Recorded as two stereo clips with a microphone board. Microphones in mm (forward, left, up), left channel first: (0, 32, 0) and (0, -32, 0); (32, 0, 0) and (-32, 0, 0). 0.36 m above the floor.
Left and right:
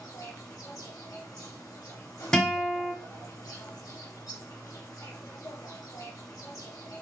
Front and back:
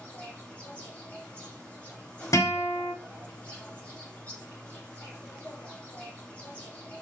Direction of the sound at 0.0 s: 65° left.